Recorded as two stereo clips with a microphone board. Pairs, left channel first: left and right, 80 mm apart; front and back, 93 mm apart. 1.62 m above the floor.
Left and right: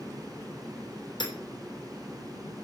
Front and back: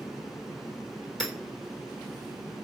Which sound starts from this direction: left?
Hammering, at 1.2 s.